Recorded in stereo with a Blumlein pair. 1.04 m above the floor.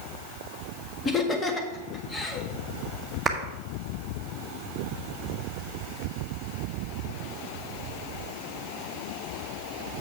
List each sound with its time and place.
1.1 s laughter: 15° left, 1.8 m
3.2 s a clap: 15° right, 1.3 m